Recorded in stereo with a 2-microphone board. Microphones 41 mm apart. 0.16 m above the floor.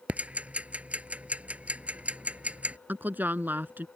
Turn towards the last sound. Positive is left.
turn(degrees=-50)  # may be behind; listen again after turning